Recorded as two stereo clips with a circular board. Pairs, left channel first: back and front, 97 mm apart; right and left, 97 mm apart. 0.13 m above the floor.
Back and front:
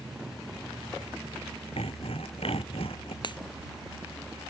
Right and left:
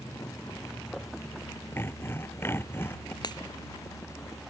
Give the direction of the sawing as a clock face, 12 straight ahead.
5 o'clock.